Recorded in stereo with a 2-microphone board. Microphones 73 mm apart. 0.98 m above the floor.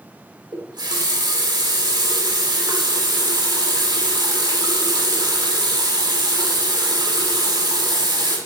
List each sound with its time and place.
0.5 s a running tap: 80° right, 2 m